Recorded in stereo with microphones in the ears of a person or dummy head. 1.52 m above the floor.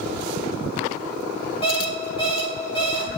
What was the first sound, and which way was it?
An alarm clock, 25° left (ahead or behind).